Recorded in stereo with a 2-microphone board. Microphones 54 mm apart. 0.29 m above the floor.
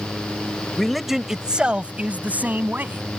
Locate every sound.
0.8 s a man speaking: 5° left (ahead or behind); by 3.0 s 35° right (ahead or behind)